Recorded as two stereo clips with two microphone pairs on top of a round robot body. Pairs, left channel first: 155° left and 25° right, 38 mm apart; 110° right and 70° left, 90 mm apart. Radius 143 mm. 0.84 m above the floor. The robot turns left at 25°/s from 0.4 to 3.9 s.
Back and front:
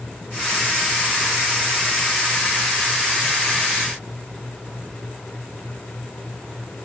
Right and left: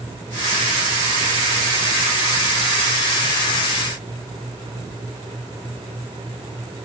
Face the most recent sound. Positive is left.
No sound to turn to.